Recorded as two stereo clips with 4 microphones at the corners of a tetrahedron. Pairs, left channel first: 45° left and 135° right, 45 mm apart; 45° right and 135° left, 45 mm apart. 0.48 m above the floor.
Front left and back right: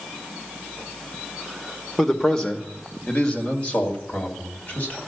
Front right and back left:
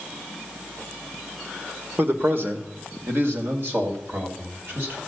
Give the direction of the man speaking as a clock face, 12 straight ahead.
8 o'clock.